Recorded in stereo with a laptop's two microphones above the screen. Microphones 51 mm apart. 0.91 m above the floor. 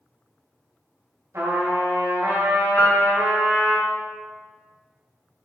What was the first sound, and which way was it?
A trumpet, 80° right.